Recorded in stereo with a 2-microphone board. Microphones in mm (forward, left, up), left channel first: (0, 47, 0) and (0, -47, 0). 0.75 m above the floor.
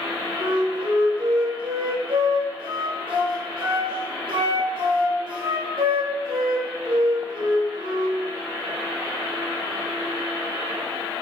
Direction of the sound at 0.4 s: 65° right (ahead or behind).